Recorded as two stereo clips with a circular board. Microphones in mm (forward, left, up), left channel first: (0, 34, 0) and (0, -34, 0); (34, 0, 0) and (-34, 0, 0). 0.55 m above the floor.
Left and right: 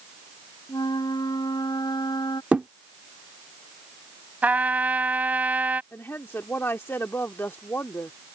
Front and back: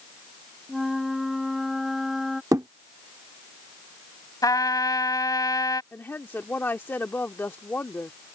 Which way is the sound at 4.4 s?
25° right.